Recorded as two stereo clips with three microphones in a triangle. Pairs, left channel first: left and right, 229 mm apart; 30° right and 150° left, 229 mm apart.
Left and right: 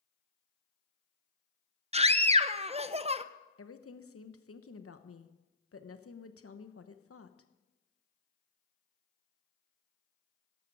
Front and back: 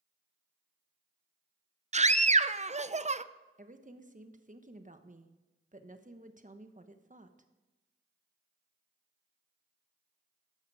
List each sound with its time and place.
1.9 s a scream: 150° right, 0.6 m
3.6 s a woman speaking: 95° left, 1.0 m